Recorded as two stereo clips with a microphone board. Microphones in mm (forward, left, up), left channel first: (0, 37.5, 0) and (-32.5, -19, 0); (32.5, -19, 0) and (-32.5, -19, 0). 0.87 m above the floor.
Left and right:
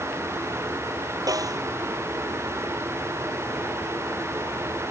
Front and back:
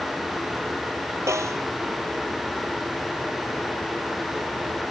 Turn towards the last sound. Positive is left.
turn(degrees=-140)